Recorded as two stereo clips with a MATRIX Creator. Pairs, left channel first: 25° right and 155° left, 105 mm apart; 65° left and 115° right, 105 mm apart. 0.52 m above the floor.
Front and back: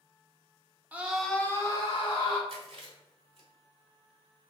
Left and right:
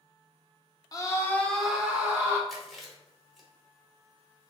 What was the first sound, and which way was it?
A scream, 95° left.